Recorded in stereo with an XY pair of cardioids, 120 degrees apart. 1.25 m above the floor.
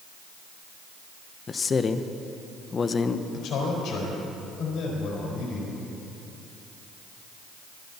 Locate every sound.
1.5 s a man speaking: 30° left, 0.8 m
3.3 s a man speaking: 70° left, 4.5 m